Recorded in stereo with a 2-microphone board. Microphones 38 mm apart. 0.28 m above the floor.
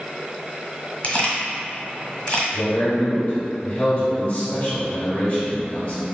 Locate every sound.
1.0 s a camera shutter: 40° left (ahead or behind), 1.2 m
2.5 s a man speaking: 40° left (ahead or behind), 1.5 m